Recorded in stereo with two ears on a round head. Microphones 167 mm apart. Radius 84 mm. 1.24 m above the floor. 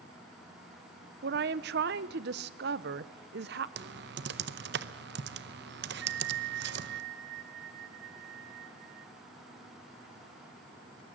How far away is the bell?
About 1.2 m.